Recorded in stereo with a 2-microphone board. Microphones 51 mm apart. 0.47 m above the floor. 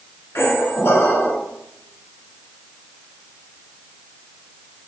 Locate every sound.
0.3 s a squeak: 55° left (ahead or behind), 1.2 m